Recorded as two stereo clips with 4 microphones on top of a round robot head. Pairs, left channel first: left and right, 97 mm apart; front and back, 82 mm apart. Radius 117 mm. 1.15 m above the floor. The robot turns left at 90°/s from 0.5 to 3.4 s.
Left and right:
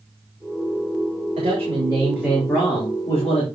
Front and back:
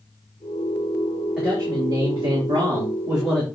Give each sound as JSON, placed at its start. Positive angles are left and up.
{"t": 1.4, "sound": "a man speaking", "azimuth_deg": -95, "distance_m": 3.5}